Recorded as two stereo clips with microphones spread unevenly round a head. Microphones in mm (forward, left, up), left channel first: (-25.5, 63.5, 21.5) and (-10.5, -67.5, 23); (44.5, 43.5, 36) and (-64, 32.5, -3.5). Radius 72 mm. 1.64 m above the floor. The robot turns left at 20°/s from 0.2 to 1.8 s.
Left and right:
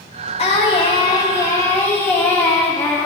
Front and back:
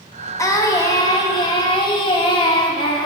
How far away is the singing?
About 1.5 m.